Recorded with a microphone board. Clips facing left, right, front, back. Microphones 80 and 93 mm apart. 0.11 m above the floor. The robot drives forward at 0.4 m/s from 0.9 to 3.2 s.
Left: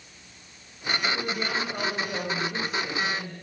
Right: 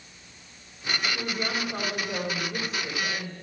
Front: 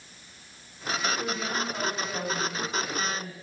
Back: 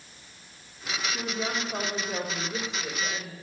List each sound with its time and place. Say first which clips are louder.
1.1 s a woman speaking: left 1 dB, front 1 dB; 175° left, 5 m